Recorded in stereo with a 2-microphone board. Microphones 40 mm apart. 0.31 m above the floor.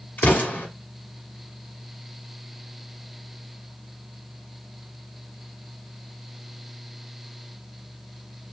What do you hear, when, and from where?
0.2 s an explosion: 50° left (ahead or behind), 1.2 m